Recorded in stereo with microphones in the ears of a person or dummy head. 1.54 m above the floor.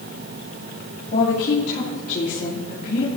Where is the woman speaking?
55° left (ahead or behind), 3 m.